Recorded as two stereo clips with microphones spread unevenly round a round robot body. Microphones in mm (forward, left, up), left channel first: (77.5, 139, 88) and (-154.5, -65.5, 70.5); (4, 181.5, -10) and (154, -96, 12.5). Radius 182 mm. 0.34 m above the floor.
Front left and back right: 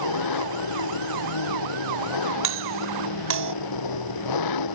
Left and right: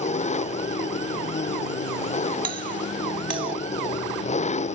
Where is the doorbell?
125° right.